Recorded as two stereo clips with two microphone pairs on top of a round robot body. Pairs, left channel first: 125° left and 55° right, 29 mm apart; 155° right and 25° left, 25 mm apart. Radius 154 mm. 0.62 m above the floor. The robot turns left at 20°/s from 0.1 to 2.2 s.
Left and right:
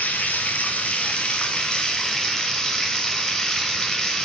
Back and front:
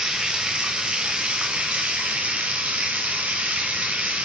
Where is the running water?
90° left, 0.9 m; by 4.2 s 50° left, 0.9 m.